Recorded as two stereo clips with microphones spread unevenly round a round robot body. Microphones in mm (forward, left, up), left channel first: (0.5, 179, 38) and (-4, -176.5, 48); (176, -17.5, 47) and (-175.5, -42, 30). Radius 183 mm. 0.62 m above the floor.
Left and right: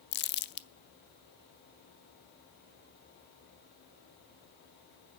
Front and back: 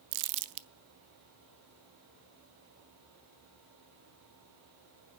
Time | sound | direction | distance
0.1 | crumpling | 150° left | 0.6 m